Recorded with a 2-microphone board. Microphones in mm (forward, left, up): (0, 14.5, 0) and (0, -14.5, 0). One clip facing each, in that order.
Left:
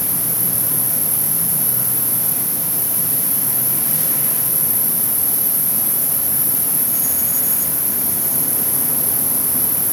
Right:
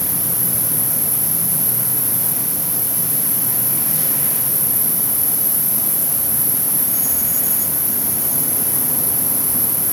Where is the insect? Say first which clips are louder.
Even; 85° left, 7 m.